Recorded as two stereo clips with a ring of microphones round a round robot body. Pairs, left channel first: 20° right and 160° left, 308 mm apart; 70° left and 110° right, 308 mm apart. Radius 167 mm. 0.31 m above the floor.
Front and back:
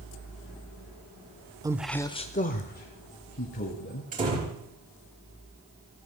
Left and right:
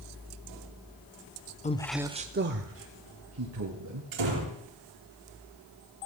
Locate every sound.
1.6 s a man speaking: 95° left, 0.9 m; by 4.0 s 75° right, 3.5 m
4.1 s a door slam: 135° right, 5 m